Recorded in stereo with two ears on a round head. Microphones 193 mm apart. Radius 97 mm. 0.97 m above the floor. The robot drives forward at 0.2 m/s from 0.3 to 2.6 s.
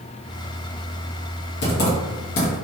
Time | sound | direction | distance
1.6 | typing on a keyboard | 50° left (ahead or behind) | 1.1 m